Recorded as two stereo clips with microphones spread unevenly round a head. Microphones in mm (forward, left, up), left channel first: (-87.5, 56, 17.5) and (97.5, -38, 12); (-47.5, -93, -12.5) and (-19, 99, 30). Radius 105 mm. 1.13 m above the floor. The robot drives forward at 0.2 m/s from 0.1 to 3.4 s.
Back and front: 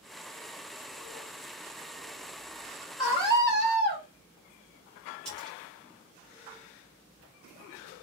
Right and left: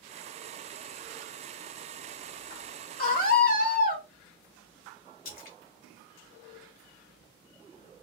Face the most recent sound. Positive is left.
turn(degrees=-120)